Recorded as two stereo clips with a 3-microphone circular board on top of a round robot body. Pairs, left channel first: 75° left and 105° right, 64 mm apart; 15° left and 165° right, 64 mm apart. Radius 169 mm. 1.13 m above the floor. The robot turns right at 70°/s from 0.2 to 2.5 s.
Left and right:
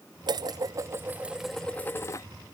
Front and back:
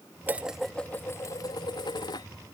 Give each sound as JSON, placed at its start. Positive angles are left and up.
{"t": 0.3, "sound": "dishes clattering", "azimuth_deg": -100}